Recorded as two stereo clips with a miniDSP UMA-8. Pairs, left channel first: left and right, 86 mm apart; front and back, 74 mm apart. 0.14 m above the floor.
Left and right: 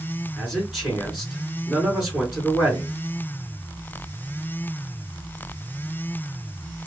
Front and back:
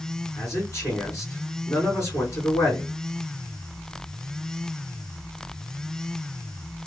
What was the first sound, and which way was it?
A man speaking, 5° right.